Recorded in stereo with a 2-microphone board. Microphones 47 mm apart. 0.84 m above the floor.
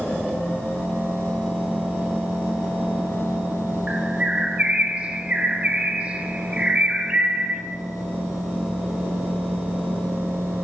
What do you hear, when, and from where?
3.9 s a bird: 25° right (ahead or behind), 0.8 m